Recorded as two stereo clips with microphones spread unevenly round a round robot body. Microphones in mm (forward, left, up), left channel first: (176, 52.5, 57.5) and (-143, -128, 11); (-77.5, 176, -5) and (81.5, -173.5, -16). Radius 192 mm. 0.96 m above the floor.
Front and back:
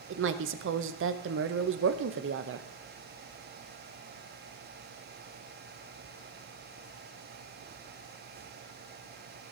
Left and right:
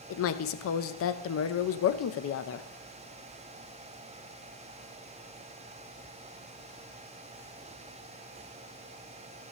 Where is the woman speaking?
165° left, 0.6 m.